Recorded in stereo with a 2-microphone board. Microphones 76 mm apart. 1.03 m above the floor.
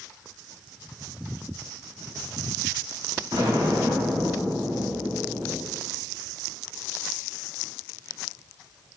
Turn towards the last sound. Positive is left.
turn(degrees=-80)